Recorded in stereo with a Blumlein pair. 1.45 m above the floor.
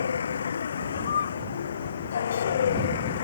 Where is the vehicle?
70° left; by 3.2 s 60° left.